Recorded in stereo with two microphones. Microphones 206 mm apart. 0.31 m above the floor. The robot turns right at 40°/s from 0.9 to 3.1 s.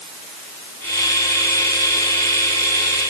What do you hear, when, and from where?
Only background noise.